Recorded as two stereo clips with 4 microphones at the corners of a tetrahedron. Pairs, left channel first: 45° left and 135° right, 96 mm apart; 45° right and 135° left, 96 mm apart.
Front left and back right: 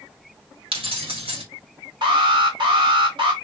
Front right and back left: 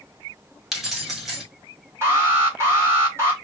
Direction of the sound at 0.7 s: 140° right.